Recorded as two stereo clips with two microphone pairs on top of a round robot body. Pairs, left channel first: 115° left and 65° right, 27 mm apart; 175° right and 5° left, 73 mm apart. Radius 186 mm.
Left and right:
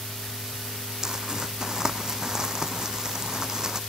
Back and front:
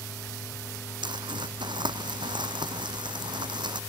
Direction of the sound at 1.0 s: 5° left.